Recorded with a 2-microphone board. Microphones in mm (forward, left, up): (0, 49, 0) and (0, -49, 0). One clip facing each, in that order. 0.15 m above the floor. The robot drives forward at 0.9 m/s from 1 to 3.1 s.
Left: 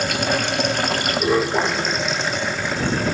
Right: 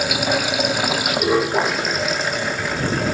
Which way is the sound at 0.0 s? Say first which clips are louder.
Right 1 dB; 5° right (ahead or behind).